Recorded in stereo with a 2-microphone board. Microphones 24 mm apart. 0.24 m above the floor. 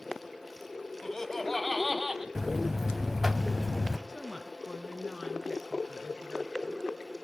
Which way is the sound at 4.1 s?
30° right (ahead or behind).